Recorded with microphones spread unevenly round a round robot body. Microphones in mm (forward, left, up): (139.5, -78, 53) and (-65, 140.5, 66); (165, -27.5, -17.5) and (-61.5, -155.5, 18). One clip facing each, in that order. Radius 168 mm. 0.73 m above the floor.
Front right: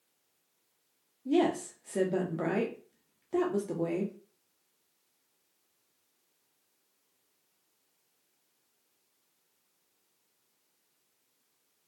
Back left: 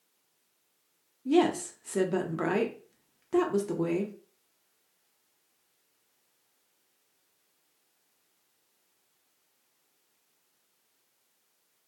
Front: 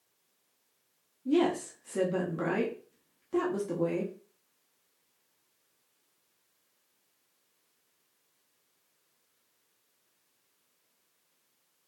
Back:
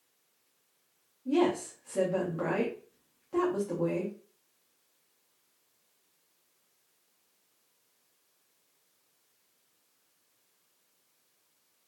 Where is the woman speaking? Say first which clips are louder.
Back left 3 dB, even; 70° left, 0.8 m.